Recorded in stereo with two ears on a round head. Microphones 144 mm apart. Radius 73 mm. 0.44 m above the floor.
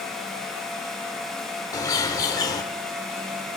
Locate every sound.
1.7 s a bird: 25° left (ahead or behind), 0.9 m